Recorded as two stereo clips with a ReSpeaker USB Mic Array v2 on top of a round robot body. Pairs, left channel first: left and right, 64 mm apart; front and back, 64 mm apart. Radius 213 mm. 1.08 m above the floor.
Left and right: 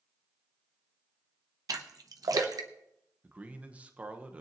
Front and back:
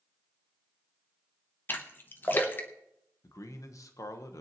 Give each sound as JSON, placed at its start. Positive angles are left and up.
{"t": 1.7, "sound": "a splash", "azimuth_deg": -60, "distance_m": 0.8}
{"t": 3.2, "sound": "a man speaking", "azimuth_deg": -25, "distance_m": 1.2}